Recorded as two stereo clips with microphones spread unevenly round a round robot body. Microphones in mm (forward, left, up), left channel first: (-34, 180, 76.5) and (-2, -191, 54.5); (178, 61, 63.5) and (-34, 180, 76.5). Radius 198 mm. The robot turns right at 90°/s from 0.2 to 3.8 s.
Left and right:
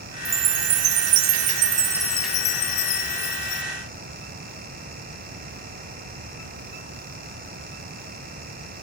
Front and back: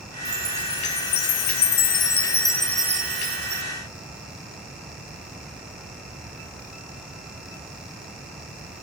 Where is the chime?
155° right, 0.9 m; by 3.6 s 150° left, 0.9 m.